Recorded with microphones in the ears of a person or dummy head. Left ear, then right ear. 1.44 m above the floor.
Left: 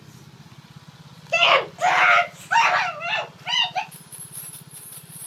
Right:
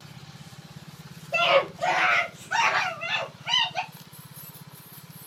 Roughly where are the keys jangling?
Left.